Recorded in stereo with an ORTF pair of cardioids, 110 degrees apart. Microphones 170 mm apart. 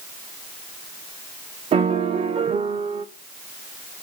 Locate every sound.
1.7 s a piano: 35° right, 0.7 m